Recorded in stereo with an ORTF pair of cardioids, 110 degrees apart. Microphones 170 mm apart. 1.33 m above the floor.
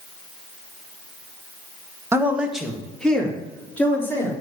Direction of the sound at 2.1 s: 15° right.